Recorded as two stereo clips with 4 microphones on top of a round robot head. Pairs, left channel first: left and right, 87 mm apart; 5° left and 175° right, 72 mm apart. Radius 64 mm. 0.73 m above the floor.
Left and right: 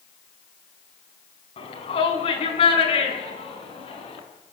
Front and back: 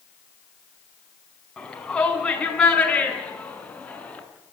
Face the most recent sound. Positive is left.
turn(degrees=80)